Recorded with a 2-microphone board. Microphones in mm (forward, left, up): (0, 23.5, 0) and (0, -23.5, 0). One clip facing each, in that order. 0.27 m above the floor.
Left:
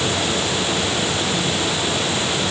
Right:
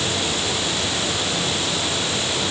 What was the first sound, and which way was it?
Only background noise.